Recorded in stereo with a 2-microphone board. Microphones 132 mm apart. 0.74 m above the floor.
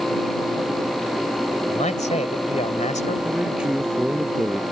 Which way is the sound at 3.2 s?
5° right (ahead or behind).